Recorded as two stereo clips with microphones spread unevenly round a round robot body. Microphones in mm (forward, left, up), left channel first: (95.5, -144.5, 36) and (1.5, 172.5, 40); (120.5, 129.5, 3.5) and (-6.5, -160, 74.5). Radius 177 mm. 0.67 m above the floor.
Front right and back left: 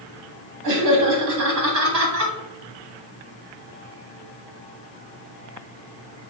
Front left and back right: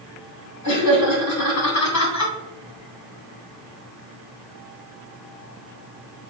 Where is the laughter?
80° left, 2.5 m.